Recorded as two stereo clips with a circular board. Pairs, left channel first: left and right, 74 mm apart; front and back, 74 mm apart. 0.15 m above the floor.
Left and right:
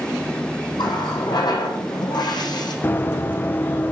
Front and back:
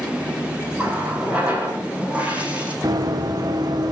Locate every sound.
0.8 s a running tap: 105° left, 5 m
2.8 s running footsteps: 150° left, 2 m